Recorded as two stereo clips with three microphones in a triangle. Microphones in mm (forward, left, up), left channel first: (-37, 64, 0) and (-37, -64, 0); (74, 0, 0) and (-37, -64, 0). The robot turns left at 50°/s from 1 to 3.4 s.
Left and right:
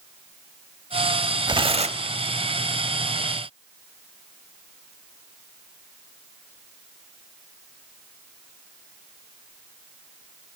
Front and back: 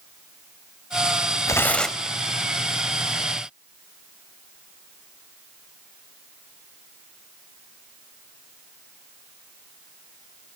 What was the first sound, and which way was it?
Tearing paper, 35° right.